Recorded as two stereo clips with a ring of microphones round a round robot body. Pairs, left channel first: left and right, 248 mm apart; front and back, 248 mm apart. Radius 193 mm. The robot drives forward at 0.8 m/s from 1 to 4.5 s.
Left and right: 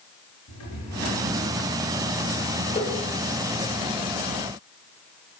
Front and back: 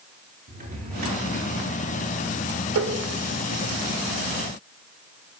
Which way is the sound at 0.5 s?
125° left.